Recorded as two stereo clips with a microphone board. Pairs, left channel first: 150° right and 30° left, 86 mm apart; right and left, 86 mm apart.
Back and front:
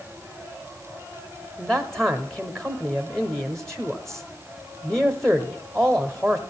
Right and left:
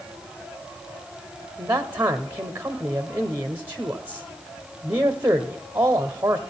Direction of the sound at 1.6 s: 130° left.